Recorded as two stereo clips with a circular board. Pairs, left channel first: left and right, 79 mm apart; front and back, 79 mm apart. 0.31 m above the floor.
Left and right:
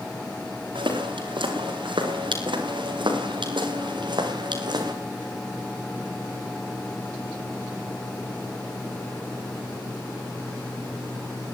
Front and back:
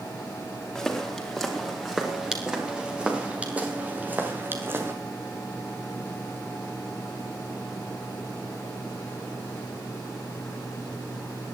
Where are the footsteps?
85° right, 5 m; by 4.9 s 120° right, 4 m.